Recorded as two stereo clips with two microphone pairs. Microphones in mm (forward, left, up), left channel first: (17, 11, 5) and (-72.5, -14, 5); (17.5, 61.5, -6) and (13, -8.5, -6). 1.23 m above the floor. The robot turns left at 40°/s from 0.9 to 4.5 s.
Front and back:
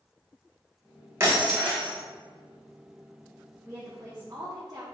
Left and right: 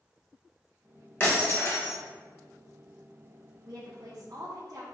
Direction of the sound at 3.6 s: 95° right.